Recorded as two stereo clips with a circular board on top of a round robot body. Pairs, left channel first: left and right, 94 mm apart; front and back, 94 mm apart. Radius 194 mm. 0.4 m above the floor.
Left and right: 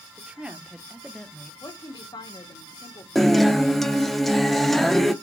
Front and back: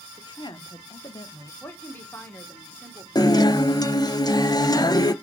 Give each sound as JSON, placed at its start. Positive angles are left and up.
{"t": 0.2, "sound": "a woman speaking", "azimuth_deg": -20, "distance_m": 1.9}
{"t": 1.6, "sound": "a woman speaking", "azimuth_deg": 65, "distance_m": 2.0}
{"t": 3.1, "sound": "a guitar", "azimuth_deg": 5, "distance_m": 1.2}